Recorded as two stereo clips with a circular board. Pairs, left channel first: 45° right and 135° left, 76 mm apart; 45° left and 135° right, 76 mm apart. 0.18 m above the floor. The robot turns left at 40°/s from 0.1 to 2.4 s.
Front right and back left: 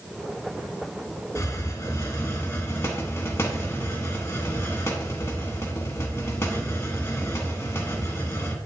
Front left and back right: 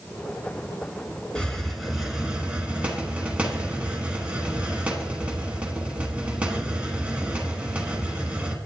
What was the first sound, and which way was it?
A hiss, 30° right.